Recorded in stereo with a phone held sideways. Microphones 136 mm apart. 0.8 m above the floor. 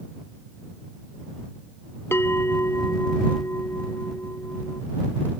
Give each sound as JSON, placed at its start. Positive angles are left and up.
{"t": 2.1, "sound": "a bell", "side_deg": 15}